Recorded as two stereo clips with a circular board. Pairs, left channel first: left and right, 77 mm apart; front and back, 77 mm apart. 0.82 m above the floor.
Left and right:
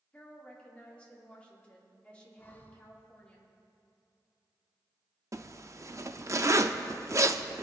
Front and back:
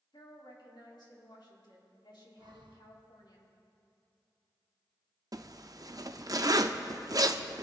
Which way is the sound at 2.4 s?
155° left.